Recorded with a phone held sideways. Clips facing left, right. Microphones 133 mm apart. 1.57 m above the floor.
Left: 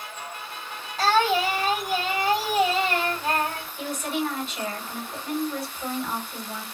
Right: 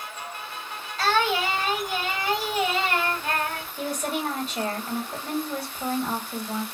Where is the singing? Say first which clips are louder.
Left 2 dB; 30° left (ahead or behind), 1.5 m.